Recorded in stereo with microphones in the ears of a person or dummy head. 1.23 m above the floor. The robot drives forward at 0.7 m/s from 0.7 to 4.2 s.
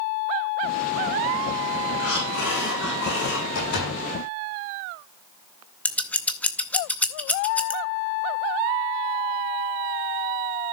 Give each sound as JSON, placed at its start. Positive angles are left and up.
{"t": 2.0, "sound": "breathing", "side_deg": 65, "distance_m": 5.5}
{"t": 3.5, "sound": "a door slam", "side_deg": 60, "distance_m": 7.5}
{"t": 5.8, "sound": "scissors", "side_deg": 5, "distance_m": 0.6}